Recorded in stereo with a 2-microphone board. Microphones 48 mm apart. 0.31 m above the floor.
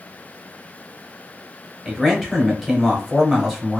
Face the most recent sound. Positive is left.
turn(degrees=-5)  # may be behind; listen again after turning